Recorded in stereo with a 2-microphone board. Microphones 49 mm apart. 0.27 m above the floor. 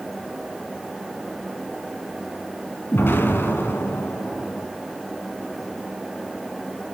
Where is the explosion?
50° left (ahead or behind), 2 m.